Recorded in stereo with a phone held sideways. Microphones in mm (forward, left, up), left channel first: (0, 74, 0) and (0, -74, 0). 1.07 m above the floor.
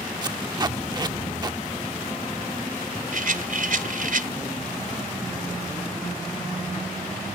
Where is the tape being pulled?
30° right (ahead or behind).